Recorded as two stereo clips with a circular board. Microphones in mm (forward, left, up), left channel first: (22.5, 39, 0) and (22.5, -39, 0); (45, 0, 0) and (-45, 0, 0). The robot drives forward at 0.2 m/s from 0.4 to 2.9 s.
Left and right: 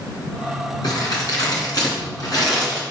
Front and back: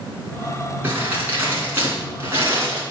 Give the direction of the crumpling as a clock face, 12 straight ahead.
8 o'clock.